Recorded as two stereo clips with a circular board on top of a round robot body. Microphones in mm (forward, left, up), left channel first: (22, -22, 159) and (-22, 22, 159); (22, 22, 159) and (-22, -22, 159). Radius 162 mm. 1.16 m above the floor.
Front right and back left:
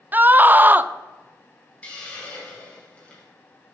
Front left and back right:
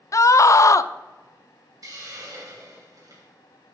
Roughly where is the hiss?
Right.